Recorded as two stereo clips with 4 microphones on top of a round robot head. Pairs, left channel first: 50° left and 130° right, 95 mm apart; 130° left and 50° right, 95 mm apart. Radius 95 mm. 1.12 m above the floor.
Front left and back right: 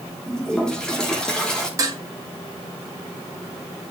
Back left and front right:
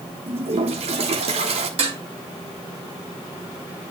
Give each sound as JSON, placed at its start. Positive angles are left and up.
{"t": 0.3, "sound": "a toilet flushing", "azimuth_deg": -35, "distance_m": 1.6}
{"t": 1.8, "sound": "dishes clattering", "azimuth_deg": -75, "distance_m": 1.9}